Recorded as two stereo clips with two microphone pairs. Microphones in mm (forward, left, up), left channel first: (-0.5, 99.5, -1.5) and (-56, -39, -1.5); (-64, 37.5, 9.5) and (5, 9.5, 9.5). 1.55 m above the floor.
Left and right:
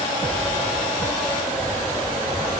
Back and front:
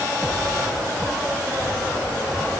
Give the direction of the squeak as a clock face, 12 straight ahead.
I don't hear a squeak.